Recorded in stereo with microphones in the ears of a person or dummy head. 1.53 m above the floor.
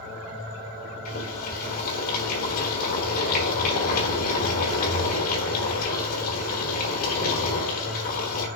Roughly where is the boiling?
Left.